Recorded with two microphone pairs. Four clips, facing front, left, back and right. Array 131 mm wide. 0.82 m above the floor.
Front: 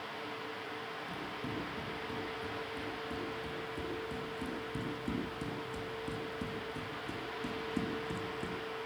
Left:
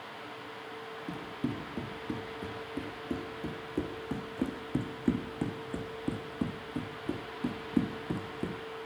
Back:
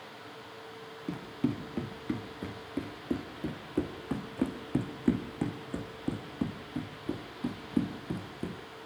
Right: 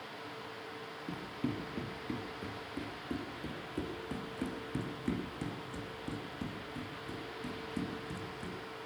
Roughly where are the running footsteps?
Behind.